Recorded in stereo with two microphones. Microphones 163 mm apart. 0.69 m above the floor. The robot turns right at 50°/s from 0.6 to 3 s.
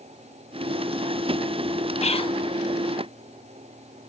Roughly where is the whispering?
Left.